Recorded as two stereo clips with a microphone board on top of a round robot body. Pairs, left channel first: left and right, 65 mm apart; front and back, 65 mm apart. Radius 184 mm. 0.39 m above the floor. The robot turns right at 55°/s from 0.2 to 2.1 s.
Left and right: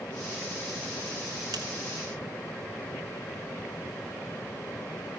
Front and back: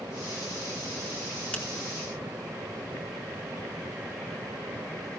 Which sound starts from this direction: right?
A finger snap, at 1.5 s.